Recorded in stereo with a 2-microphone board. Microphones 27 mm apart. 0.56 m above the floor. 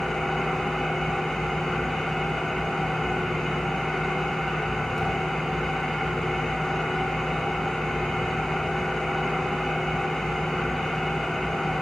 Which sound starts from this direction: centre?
An engine running, at 0.0 s.